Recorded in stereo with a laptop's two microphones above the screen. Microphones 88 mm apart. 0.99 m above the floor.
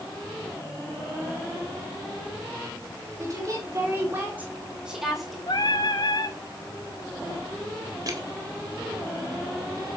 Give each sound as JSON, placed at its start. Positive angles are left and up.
{"t": 3.2, "sound": "a woman speaking", "side_deg": -35, "distance_m": 4.0}
{"t": 5.5, "sound": "singing", "side_deg": 55, "distance_m": 1.9}
{"t": 8.1, "sound": "crushing", "side_deg": -45, "distance_m": 1.7}